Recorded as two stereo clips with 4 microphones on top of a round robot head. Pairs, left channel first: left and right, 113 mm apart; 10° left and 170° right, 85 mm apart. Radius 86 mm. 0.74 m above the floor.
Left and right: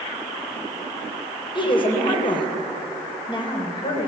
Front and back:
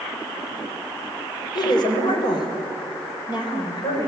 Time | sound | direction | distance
1.6 | a woman speaking | 45° left | 4 m